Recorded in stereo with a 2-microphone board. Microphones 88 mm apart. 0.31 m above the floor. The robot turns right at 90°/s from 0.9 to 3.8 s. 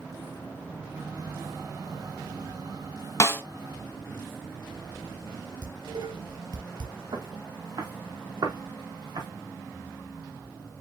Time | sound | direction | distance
3.2 | a snare drum | 40° left (ahead or behind) | 1.6 m
5.6 | dishes clattering | 55° right (ahead or behind) | 4.5 m
7.1 | footsteps | 55° right (ahead or behind) | 3.5 m